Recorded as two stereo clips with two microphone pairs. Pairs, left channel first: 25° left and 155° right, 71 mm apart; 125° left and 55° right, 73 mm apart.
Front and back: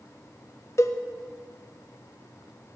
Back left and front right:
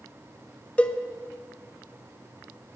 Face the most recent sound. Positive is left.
turn(degrees=55)